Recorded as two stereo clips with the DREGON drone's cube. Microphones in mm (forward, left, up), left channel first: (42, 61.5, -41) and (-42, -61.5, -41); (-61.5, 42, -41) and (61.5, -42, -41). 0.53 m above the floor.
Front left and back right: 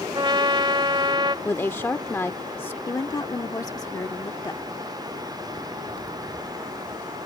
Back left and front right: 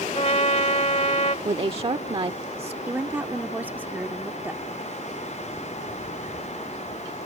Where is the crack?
I don't hear a crack.